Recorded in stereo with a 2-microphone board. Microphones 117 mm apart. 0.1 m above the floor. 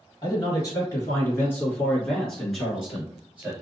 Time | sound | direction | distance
0.2 | a man speaking | 35° left (ahead or behind) | 1.8 m